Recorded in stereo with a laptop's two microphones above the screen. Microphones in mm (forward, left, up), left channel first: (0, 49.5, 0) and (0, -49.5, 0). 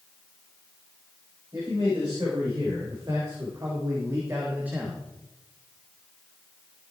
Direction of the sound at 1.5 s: 50° right (ahead or behind).